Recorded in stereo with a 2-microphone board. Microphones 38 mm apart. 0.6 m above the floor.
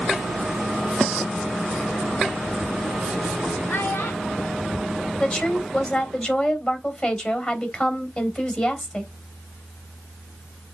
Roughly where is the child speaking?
Left.